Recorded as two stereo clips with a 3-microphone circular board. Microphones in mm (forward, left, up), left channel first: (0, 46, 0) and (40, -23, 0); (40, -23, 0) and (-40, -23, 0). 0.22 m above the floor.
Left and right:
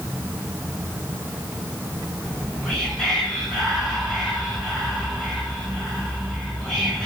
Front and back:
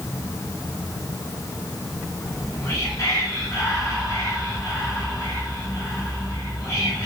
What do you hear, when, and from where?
2.2 s whispering: 40° left, 1.4 m